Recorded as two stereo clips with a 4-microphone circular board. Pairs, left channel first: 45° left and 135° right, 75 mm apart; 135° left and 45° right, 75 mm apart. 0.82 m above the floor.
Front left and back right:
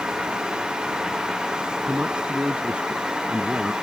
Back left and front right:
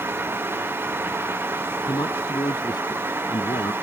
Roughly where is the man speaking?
Behind left.